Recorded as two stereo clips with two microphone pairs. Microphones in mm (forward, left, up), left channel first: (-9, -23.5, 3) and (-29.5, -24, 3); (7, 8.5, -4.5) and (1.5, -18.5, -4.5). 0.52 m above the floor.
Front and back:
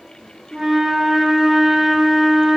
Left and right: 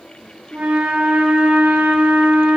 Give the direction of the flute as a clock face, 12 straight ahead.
4 o'clock.